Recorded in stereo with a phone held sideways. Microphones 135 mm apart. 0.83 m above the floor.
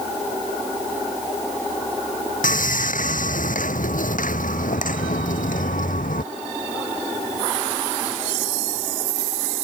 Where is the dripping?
No dripping in this recording.